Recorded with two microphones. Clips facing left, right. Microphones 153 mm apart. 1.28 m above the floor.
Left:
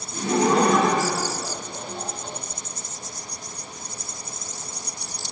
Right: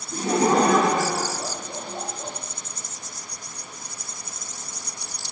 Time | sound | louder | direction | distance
0.1 | laughter | even | 40° right (ahead or behind) | 0.9 m